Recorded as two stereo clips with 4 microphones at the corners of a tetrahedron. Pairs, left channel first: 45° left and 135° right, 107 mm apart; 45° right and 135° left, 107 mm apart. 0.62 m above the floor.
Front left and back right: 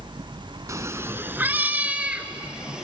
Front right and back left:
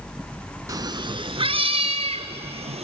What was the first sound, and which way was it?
A cat meowing, straight behind.